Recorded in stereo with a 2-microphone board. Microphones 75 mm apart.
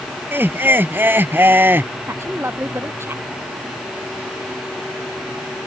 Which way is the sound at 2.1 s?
35° right (ahead or behind).